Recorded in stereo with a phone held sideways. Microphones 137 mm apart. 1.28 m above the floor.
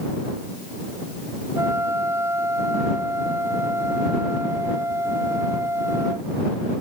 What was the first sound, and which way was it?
A flute, 20° right (ahead or behind).